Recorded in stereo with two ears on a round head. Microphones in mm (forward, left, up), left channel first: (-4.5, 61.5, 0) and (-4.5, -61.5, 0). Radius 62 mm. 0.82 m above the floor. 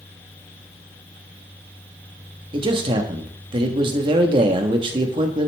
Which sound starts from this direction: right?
A man speaking, at 2.5 s.